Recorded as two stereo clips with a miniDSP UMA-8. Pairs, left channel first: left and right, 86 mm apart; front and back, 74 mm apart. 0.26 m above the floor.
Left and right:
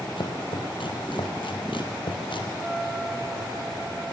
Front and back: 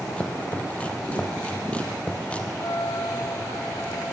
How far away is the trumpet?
About 6.5 m.